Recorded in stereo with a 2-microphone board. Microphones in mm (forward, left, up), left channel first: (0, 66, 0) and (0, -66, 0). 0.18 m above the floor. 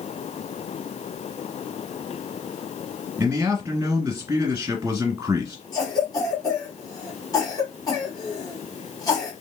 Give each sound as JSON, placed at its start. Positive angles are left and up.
{"t": 3.2, "sound": "a man speaking", "side_deg": -20, "distance_m": 1.7}
{"t": 5.7, "sound": "a cough", "side_deg": 25, "distance_m": 1.1}